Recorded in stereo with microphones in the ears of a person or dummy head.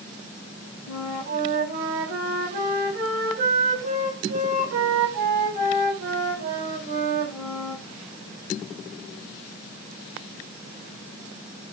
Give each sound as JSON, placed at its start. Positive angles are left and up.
{"t": 0.9, "sound": "a flute", "side_deg": -55, "distance_m": 7.0}